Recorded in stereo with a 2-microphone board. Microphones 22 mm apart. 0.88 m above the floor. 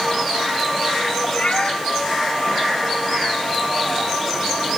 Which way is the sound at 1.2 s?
70° left (ahead or behind).